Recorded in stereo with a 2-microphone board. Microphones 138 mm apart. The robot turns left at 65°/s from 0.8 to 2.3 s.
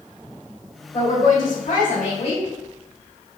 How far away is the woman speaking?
About 1.4 m.